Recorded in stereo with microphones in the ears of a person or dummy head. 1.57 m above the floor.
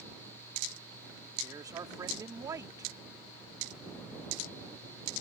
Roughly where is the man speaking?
Centre.